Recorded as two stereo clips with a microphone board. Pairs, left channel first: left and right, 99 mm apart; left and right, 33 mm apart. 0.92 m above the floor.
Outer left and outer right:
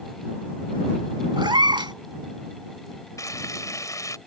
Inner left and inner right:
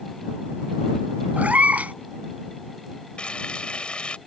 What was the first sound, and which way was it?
A cat meowing, 60° right (ahead or behind).